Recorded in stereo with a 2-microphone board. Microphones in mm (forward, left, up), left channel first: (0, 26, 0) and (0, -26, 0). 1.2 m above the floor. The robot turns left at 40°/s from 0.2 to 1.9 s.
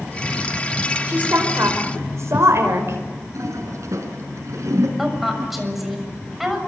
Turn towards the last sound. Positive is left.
turn(degrees=-5)  # may be behind; listen again after turning